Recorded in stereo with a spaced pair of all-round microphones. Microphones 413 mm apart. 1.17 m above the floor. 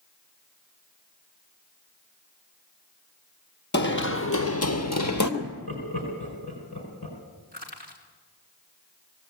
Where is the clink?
No clink in this recording.